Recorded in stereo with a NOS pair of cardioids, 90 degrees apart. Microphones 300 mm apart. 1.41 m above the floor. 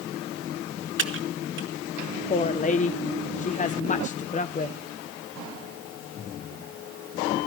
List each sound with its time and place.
1.0 s typing on a keyboard: 40° right, 2 m
2.3 s a woman speaking: 25° left, 1.0 m